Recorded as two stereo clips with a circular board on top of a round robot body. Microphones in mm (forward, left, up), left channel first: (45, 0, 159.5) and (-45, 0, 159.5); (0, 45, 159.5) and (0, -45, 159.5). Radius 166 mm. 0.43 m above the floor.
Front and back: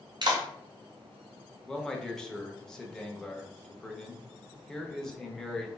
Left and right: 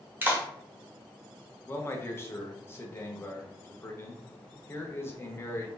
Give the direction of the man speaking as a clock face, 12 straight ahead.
9 o'clock.